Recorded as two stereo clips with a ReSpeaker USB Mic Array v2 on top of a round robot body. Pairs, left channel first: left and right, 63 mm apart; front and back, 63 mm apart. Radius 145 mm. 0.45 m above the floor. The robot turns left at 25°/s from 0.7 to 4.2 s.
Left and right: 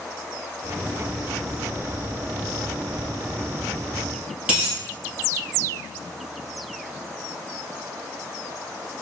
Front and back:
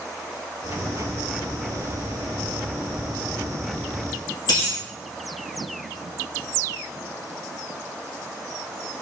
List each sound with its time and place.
4.5 s a dropped coin: 15° right, 1.4 m